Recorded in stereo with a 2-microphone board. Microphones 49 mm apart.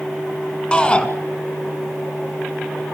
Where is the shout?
20° left (ahead or behind), 2.0 m.